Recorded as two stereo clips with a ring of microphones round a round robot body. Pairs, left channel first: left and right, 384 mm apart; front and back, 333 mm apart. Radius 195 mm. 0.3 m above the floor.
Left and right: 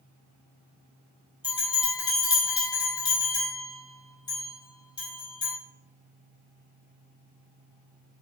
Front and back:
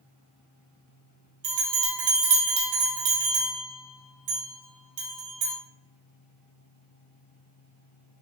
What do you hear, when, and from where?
1.4 s a bell: 170° left, 1.8 m